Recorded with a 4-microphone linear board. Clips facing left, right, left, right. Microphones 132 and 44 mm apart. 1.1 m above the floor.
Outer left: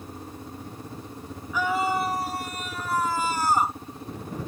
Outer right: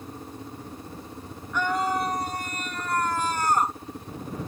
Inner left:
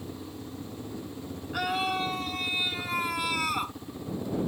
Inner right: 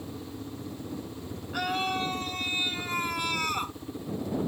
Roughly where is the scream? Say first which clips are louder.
Outer left 1 dB, inner left 1 dB; centre.